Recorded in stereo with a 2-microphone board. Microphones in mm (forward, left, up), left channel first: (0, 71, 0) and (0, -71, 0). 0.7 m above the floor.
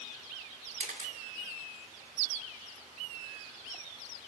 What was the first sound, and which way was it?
A camera shutter, 60° right (ahead or behind).